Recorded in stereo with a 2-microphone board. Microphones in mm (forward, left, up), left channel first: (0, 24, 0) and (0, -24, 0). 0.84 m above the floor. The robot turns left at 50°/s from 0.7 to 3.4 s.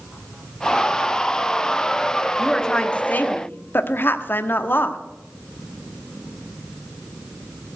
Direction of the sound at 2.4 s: 175° left.